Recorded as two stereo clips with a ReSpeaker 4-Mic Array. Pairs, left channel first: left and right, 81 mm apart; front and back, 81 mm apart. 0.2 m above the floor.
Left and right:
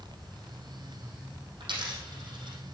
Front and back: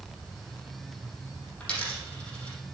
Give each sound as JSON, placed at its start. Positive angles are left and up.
{"t": 1.6, "sound": "a dropped coin", "azimuth_deg": -75, "distance_m": 3.5}